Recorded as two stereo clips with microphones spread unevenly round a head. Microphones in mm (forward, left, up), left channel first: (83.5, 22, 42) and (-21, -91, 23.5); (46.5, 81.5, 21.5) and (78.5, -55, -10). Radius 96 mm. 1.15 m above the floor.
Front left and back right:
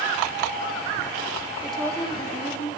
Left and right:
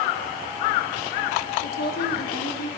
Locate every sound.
1.6 s a woman speaking: 150° left, 1.1 m; by 2.7 s 95° left, 2 m